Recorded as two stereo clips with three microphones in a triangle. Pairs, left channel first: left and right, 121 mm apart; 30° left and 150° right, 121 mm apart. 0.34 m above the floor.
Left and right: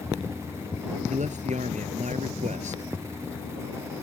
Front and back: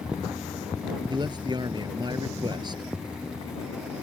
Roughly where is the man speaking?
Right.